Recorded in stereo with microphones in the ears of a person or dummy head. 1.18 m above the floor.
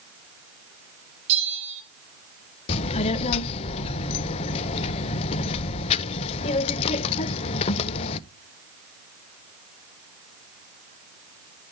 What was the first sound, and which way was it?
A bell, 40° right (ahead or behind).